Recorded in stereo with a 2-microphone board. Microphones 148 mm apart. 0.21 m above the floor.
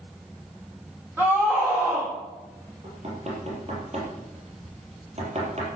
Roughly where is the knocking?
Right.